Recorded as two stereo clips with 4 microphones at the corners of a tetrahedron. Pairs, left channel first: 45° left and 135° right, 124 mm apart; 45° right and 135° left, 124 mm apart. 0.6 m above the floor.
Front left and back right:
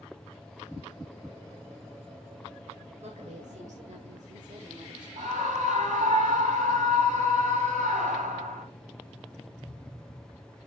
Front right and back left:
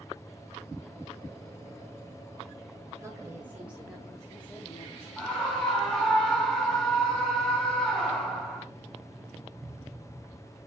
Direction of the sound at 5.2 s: 130° right.